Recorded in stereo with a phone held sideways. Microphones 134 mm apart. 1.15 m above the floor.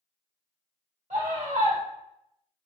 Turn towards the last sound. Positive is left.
turn(degrees=-70)  # may be behind; listen again after turning